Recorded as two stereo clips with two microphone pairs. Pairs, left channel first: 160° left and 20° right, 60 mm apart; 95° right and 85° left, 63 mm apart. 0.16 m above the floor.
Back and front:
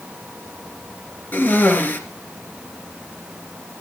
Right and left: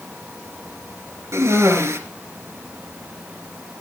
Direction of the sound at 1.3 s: 110° left.